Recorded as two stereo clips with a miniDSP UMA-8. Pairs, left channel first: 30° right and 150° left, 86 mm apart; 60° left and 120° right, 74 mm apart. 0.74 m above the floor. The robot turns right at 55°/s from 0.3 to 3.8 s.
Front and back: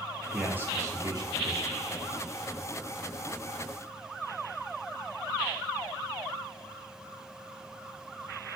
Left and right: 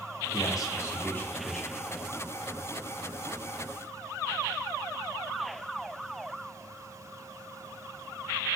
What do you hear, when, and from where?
0.3 s a man speaking: 75° left, 1.2 m; by 1.7 s 150° left, 1.2 m